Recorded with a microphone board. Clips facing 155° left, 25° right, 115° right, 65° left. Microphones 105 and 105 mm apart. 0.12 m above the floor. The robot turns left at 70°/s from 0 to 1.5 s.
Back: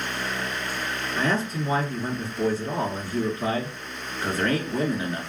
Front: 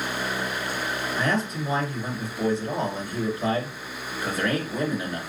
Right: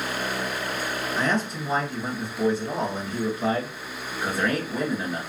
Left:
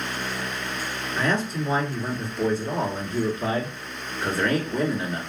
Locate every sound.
1.2 s a man speaking: 175° right, 1.4 m; by 5.2 s 160° left, 1.4 m